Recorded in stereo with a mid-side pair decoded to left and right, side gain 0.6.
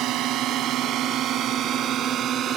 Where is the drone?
65° right; by 2.6 s 50° right.